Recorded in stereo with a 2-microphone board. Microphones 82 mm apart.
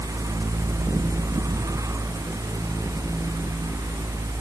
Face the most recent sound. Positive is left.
No sound to turn to.